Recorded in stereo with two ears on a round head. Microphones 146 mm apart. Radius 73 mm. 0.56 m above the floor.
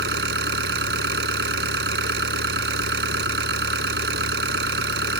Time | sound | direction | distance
0.0 | an engine running | 75° right (ahead or behind) | ?